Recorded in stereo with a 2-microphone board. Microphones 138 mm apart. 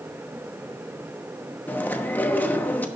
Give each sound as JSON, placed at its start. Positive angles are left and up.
{"t": 1.7, "sound": "chewing", "side_deg": 15, "distance_m": 1.0}